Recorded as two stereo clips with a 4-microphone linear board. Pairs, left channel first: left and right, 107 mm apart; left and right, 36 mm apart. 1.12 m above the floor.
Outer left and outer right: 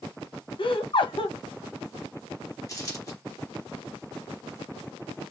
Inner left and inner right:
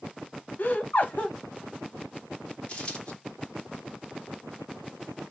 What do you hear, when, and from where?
0.6 s laughter: 55° left (ahead or behind), 0.6 m
2.7 s a dropped coin: 35° left (ahead or behind), 1.0 m